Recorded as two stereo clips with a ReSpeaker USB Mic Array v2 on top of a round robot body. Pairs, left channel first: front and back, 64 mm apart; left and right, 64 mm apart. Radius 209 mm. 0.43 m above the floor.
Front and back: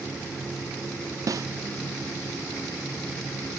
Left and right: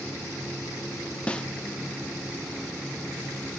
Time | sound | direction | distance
1.3 | a snare drum | 160° left | 0.8 m